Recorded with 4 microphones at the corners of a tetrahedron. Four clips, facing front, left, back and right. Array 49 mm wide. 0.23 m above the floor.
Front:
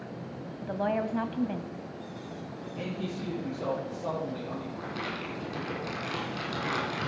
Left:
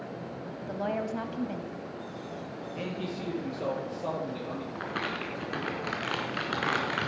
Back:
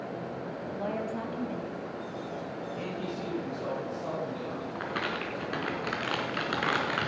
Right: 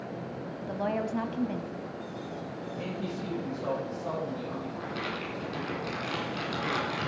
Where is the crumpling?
140° left, 3.5 m.